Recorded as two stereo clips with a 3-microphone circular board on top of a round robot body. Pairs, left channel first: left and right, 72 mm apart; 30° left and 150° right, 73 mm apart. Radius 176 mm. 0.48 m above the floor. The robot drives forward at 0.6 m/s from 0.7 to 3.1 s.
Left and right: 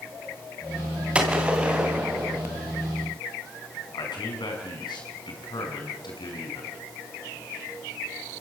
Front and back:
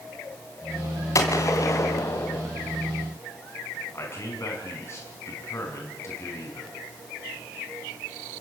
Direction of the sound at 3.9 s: 85° left.